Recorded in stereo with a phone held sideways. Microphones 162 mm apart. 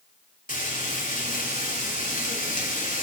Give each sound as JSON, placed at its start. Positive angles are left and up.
{"t": 0.5, "sound": "frying", "side_deg": 55, "distance_m": 2.5}